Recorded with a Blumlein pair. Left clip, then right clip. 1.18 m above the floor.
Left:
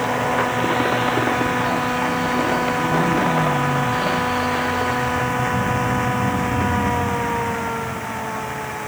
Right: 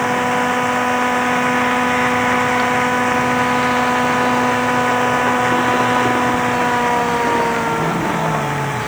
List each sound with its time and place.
0.0 s a machine running: 15° right